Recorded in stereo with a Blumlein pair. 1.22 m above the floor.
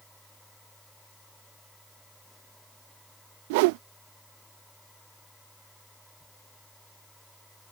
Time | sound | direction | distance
0.0 | a machine running | straight ahead | ?
3.5 | a whoosh | 45° right | ?